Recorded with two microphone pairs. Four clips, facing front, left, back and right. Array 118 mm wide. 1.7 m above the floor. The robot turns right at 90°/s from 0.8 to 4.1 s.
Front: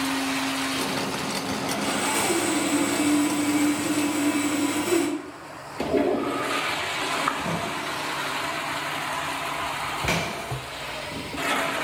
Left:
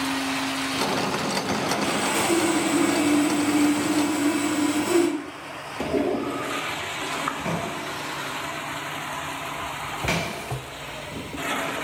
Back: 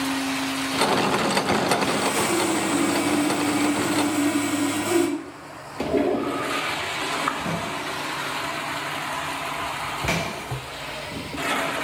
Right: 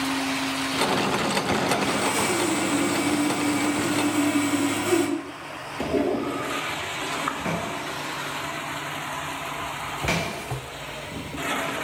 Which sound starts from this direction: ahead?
Sawing, at 1.7 s.